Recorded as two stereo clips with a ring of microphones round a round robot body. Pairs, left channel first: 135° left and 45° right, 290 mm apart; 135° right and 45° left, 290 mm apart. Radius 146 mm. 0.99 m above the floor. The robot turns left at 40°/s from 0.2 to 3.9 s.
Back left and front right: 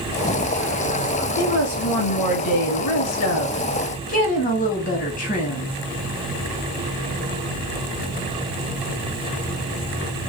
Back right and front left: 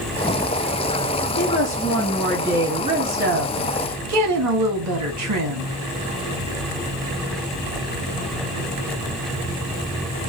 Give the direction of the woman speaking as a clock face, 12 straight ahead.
6 o'clock.